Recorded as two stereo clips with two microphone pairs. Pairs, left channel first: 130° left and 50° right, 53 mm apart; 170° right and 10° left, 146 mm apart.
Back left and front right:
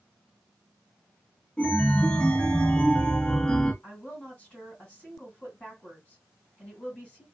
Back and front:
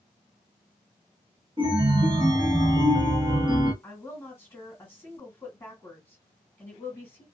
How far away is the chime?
About 0.7 m.